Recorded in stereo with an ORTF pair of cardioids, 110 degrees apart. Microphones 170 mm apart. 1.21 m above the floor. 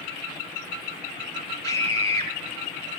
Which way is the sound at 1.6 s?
30° left.